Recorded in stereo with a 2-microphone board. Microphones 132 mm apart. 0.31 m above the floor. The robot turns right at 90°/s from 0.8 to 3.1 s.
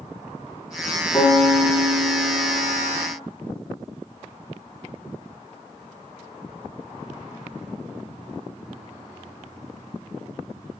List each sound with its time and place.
1.1 s a piano: 165° left, 5 m; by 3.1 s 20° right, 5 m